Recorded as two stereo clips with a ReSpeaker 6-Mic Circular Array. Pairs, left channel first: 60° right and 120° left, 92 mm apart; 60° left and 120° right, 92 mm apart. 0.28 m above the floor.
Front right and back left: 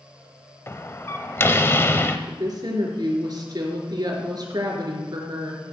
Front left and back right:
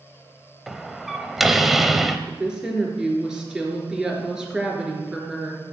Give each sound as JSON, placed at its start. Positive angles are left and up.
{"t": 0.7, "sound": "a door slam", "azimuth_deg": -35, "distance_m": 0.8}
{"t": 2.3, "sound": "a woman speaking", "azimuth_deg": 155, "distance_m": 3.5}